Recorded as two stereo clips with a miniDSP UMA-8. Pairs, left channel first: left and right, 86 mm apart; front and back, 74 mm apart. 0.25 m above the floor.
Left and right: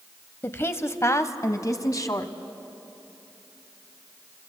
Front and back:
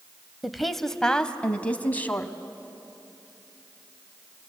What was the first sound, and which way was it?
A woman speaking, 100° left.